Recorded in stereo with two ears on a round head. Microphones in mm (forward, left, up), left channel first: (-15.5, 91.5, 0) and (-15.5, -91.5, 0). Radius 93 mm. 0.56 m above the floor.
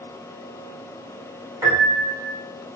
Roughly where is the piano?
Centre.